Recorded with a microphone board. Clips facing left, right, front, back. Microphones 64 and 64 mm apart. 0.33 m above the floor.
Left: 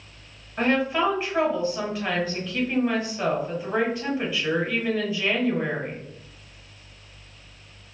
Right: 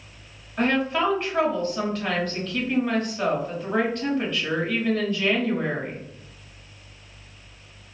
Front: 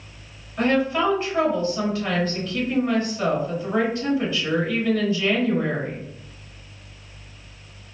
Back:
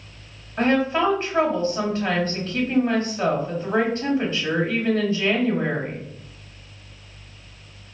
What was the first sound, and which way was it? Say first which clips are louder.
A woman speaking: even, back 1 dB; 165° left.